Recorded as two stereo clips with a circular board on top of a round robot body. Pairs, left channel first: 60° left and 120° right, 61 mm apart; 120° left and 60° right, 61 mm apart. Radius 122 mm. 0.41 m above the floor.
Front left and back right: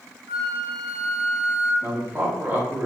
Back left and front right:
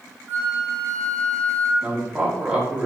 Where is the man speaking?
125° right, 1.4 m.